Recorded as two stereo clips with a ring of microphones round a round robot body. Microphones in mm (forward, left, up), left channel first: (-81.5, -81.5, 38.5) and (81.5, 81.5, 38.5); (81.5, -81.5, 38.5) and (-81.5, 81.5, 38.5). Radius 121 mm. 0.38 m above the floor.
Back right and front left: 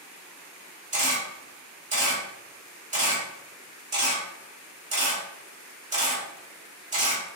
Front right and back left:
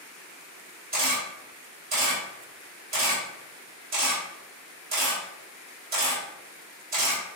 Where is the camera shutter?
95° left, 1.7 m.